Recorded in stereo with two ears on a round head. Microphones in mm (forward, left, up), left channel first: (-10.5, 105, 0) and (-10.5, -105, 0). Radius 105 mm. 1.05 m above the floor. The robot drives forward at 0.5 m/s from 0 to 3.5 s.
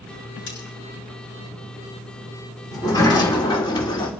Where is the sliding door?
15° left (ahead or behind), 2.5 m; by 4.1 s 20° left (ahead or behind), 1.9 m.